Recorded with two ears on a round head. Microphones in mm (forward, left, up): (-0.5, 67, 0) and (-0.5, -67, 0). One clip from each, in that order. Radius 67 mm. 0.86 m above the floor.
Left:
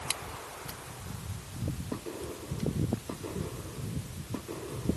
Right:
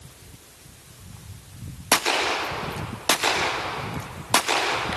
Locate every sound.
Only background noise.